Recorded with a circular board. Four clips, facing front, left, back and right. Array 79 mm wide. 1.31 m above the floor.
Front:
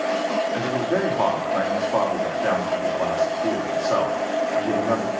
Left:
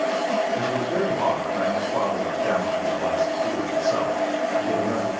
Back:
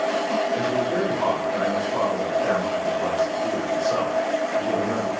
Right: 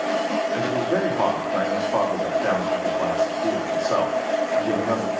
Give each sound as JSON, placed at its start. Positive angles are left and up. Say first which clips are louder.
{"t": 0.5, "sound": "a man speaking", "louder": "right 1 dB, even", "azimuth_deg": -45, "distance_m": 3.0}